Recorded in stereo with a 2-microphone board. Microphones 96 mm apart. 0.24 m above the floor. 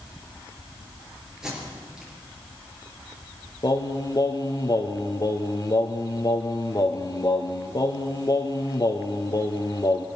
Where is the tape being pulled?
5° right (ahead or behind), 5 m.